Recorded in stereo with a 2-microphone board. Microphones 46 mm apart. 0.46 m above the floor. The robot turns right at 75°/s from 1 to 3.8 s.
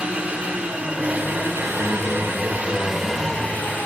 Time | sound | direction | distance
0.0 | an engine running | 150° right | 7.5 m
1.8 | a man speaking | 70° right | 6.5 m